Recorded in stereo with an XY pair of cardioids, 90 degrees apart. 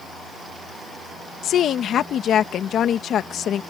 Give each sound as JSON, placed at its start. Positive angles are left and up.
{"t": 1.4, "sound": "a woman speaking", "azimuth_deg": 70}